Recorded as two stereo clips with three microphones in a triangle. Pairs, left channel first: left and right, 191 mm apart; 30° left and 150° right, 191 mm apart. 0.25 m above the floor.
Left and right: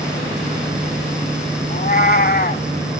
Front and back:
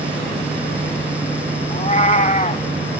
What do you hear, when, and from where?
1.7 s a cat meowing: 70° left, 0.7 m